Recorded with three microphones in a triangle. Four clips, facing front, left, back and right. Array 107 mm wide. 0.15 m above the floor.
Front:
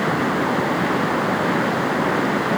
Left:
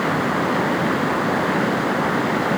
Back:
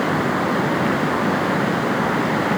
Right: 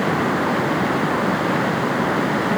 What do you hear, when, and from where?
Only background noise.